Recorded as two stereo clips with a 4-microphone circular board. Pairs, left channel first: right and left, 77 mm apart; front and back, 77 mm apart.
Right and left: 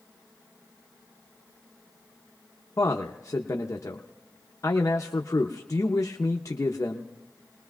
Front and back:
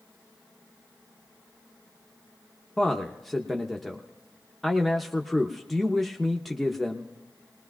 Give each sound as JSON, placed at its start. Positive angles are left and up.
{"t": 2.8, "sound": "a man speaking", "azimuth_deg": -85, "distance_m": 0.7}